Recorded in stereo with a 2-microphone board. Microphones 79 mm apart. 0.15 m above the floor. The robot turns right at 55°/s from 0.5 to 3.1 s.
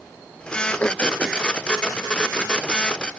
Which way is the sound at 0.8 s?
15° left (ahead or behind).